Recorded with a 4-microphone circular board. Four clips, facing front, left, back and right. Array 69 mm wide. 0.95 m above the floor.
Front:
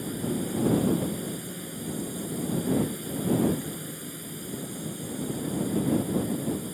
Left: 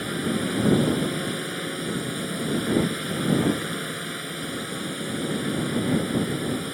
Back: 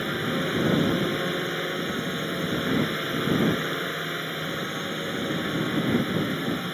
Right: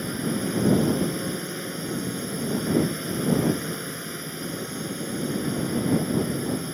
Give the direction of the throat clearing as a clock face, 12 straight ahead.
No throat clearing in this recording.